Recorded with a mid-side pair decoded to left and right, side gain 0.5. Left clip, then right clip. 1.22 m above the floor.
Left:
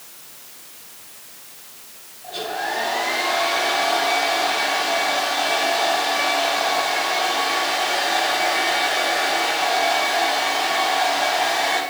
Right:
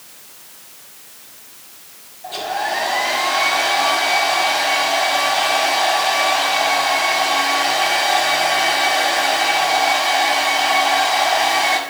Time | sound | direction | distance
2.2 | a hair dryer | 55° right | 5.5 m